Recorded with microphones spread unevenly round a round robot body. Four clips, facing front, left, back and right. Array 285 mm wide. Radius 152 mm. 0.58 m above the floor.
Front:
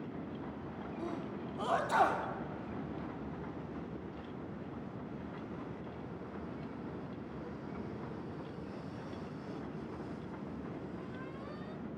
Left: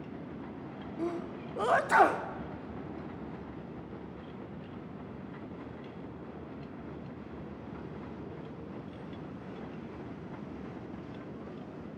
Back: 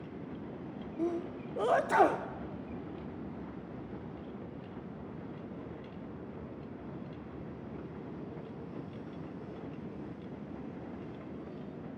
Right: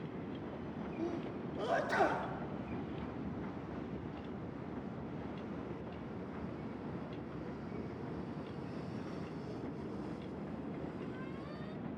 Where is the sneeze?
155° left, 1.3 m.